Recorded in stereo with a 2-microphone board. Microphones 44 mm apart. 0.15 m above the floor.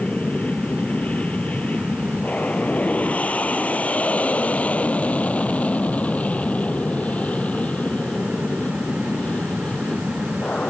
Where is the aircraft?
35° left (ahead or behind); by 10.7 s 30° left (ahead or behind).